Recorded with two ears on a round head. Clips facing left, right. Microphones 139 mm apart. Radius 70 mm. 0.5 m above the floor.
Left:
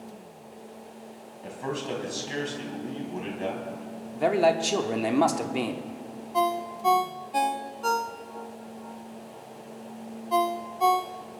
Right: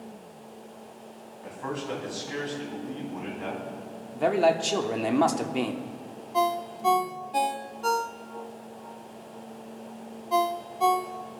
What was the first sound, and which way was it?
A man speaking, 30° left (ahead or behind).